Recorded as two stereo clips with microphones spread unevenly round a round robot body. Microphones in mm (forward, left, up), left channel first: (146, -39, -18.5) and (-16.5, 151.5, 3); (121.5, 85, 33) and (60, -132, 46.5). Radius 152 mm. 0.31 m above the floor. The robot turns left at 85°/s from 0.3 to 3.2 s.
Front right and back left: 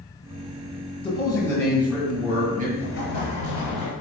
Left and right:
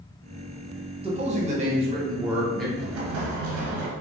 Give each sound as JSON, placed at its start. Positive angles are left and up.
{"t": 1.0, "sound": "a man speaking", "azimuth_deg": -70, "distance_m": 1.2}
{"t": 2.8, "sound": "an explosion", "azimuth_deg": -85, "distance_m": 1.1}